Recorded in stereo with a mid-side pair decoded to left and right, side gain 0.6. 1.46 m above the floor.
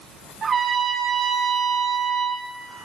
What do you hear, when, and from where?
0.4 s a trumpet: 35° right, 1.7 m